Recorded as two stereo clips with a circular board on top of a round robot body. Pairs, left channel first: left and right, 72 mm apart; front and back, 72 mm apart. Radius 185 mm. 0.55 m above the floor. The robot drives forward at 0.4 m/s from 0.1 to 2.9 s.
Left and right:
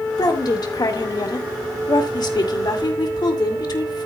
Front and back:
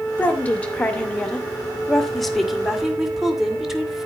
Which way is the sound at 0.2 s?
70° left.